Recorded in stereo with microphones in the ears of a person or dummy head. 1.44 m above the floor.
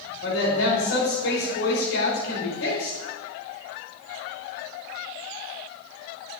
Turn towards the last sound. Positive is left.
turn(degrees=85)